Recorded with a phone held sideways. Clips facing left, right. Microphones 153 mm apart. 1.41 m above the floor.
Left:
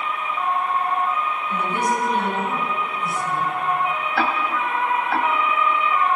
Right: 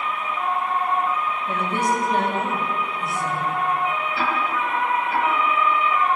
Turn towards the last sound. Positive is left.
turn(degrees=75)  # may be behind; listen again after turning